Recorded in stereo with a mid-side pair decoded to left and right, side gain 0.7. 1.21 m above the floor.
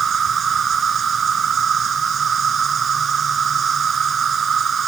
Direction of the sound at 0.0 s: 35° right.